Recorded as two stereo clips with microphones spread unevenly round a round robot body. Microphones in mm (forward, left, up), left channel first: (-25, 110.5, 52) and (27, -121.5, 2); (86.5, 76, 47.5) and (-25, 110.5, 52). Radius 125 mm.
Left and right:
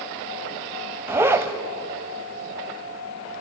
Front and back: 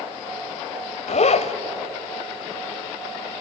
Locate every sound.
1.1 s a zipper: 5° right, 1.4 m